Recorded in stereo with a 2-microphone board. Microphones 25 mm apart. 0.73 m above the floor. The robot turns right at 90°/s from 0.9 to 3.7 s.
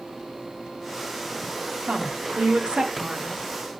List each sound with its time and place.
1.9 s a woman speaking: 130° right, 1.5 m; by 3.4 s 15° left, 1.5 m